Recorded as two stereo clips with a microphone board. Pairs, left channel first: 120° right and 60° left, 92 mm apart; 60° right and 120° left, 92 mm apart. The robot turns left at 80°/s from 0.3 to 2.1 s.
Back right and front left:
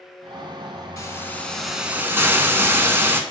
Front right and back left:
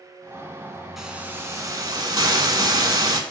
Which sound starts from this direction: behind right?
A hiss, at 1.0 s.